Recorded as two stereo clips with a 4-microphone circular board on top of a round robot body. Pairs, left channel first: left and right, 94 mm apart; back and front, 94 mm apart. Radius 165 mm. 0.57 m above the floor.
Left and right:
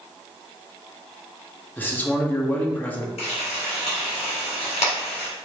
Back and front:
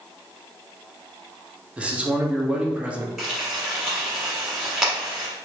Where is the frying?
90° left, 1.3 m.